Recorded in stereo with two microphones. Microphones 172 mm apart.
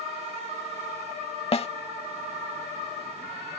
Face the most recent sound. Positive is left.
turn(degrees=35)  # may be behind; listen again after turning